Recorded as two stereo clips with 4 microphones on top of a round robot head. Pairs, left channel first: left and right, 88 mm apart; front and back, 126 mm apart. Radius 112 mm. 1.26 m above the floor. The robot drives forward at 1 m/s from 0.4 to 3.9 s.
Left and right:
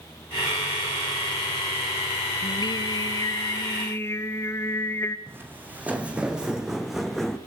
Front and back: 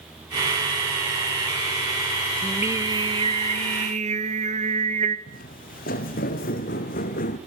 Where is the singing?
95° left, 0.9 m; by 5.2 s 155° left, 1.8 m.